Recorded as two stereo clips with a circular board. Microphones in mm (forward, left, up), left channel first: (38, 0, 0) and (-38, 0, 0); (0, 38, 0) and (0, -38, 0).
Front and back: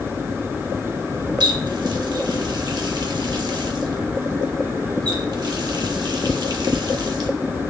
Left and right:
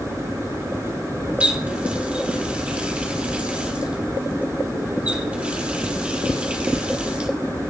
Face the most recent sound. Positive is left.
turn(degrees=-165)